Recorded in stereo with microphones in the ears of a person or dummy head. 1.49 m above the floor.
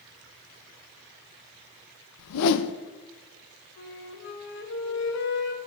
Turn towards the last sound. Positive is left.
turn(degrees=55)  # may be behind; listen again after turning